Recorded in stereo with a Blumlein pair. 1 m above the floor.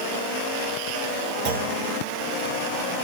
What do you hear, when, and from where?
1.4 s a clunk: 45° right, 1.5 m